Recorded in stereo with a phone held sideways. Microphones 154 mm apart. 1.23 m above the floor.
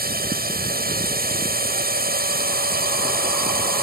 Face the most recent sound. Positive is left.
turn(degrees=-75)  # may be behind; listen again after turning